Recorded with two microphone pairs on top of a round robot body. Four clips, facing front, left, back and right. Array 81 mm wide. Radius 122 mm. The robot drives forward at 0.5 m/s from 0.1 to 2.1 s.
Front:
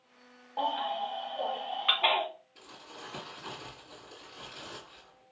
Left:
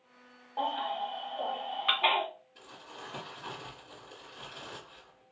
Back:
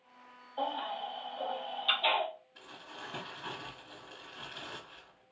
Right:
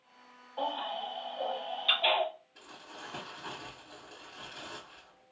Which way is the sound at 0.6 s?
30° left.